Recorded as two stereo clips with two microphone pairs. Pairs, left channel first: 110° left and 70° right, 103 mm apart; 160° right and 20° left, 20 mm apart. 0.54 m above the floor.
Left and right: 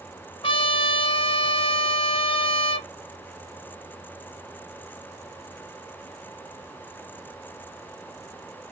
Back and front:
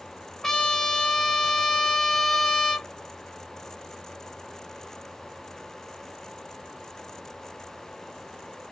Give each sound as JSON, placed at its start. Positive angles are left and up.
{"t": 0.4, "sound": "a trumpet", "azimuth_deg": 135, "distance_m": 1.1}